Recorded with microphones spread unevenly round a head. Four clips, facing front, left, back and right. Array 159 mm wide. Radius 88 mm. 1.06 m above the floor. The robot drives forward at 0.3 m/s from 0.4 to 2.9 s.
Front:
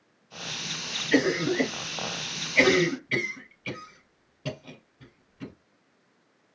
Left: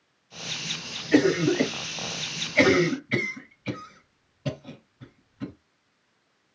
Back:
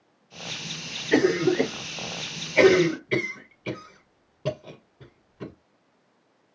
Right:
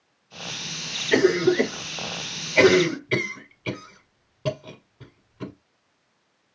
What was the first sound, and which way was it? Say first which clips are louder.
A cough: right 2 dB, back 3 dB; 115° right.